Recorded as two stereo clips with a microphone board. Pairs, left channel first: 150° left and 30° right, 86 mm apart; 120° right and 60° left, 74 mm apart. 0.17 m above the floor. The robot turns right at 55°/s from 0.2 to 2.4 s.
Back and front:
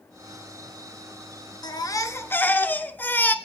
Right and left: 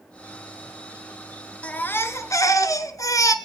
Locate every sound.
1.6 s a baby crying: 170° left, 1.3 m; by 3.4 s 145° right, 1.3 m